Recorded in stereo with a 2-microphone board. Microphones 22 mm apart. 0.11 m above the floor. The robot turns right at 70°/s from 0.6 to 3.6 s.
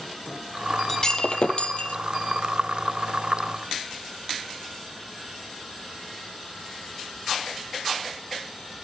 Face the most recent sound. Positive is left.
turn(degrees=-150)